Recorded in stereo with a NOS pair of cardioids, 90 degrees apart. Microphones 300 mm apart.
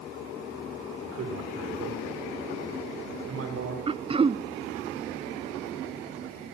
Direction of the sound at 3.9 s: 20° right.